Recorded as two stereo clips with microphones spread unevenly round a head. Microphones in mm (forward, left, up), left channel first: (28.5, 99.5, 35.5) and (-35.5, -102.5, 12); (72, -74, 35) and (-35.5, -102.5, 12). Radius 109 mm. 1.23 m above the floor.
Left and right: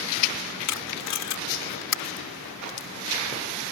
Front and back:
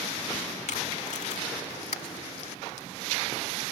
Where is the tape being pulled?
70° left.